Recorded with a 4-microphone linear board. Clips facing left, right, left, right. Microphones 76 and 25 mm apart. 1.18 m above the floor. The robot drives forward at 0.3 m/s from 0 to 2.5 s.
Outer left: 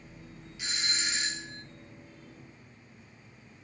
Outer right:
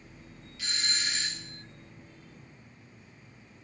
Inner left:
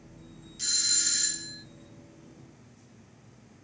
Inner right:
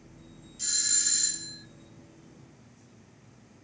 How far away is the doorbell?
About 0.7 m.